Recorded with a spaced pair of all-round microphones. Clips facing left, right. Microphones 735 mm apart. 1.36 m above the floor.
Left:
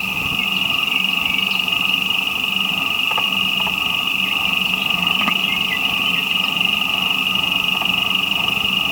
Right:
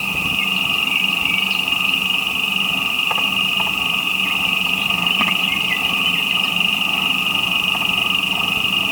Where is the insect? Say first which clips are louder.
Right 1 dB; 70° right (ahead or behind), 1.5 m.